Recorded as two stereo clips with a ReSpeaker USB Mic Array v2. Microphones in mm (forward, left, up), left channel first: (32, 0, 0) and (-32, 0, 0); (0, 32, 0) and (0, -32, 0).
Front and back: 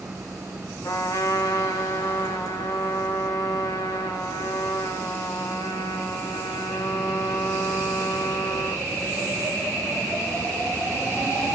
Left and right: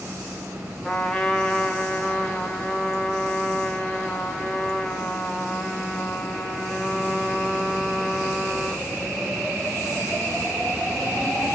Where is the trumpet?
10° left, 0.9 m.